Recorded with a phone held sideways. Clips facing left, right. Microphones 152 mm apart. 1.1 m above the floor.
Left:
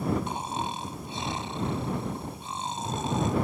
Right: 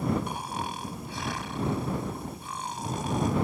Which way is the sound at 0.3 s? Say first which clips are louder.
Left 2 dB; 25° left (ahead or behind).